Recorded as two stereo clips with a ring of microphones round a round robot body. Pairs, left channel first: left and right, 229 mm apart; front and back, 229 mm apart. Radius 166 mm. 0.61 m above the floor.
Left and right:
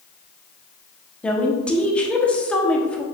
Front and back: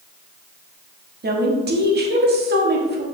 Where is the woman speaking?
175° left, 1.4 m.